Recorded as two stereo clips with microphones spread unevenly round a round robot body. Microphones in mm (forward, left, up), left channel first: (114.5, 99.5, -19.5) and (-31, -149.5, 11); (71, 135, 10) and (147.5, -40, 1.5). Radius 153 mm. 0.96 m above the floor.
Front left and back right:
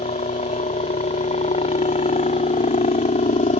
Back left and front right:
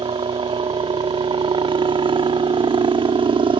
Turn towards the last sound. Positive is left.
turn(degrees=-5)